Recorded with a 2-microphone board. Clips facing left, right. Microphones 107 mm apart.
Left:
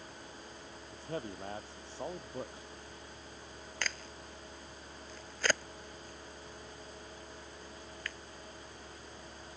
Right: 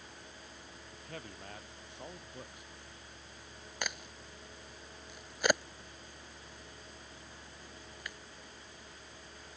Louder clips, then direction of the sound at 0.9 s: Left 8 dB; 30° left (ahead or behind).